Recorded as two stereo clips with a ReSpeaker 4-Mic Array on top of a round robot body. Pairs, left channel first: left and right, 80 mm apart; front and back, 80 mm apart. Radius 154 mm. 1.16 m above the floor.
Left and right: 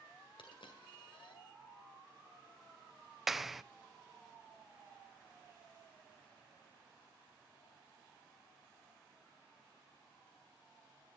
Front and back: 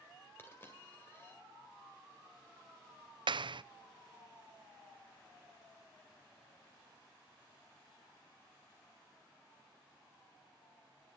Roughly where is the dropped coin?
Ahead left.